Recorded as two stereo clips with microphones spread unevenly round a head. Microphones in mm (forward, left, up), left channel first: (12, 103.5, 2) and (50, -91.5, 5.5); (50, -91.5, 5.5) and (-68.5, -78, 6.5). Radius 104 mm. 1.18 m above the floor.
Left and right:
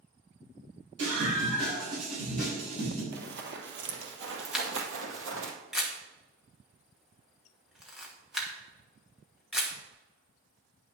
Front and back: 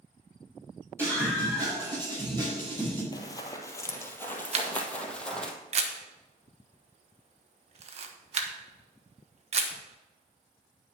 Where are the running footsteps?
55° right, 1.9 m; by 5.5 s 90° right, 2.5 m.